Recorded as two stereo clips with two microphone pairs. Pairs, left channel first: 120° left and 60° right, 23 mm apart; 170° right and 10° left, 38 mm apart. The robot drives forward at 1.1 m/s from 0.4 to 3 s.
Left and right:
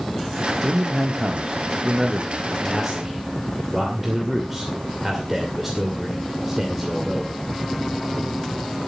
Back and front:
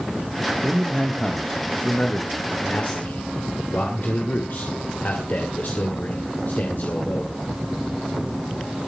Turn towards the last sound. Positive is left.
turn(degrees=-145)